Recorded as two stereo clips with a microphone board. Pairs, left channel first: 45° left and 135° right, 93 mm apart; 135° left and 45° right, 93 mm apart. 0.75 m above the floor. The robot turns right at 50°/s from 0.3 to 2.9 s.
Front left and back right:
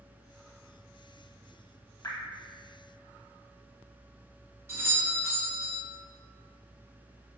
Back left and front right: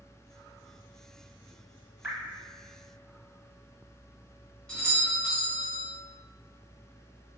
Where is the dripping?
10° left, 0.7 m; by 2.2 s 20° left, 0.7 m.